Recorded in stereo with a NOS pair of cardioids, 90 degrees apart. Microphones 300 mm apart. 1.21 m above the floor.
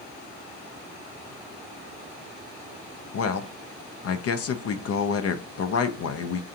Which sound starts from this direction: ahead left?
A man speaking, at 3.1 s.